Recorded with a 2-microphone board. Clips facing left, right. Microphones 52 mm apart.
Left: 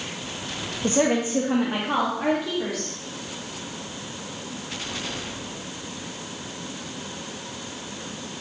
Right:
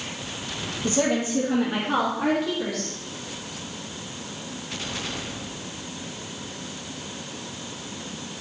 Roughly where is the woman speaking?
Left.